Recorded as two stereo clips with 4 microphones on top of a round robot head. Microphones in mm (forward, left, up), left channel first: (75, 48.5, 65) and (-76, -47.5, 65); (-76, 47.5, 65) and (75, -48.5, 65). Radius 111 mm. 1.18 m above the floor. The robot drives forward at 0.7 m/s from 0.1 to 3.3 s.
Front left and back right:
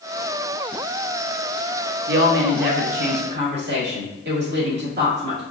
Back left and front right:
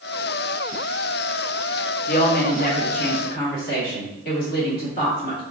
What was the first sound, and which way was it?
A woman speaking, 170° right.